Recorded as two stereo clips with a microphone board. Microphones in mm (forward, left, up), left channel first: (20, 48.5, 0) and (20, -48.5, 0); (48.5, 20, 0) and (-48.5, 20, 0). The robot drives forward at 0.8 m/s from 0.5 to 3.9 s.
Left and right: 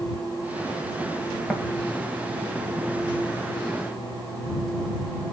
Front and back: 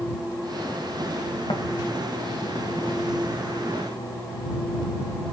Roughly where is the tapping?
Ahead.